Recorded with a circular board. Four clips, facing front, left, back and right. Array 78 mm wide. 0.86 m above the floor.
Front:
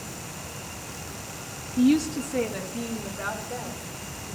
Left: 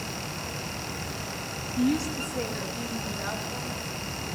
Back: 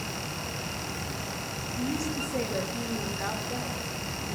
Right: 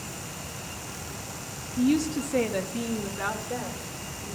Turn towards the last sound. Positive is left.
turn(degrees=-100)